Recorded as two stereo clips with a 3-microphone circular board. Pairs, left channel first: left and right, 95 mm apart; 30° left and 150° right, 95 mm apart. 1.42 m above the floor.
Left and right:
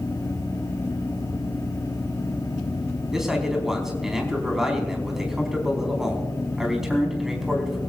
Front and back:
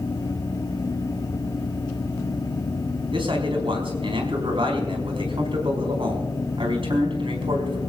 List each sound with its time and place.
3.1 s a man speaking: 175° right, 4 m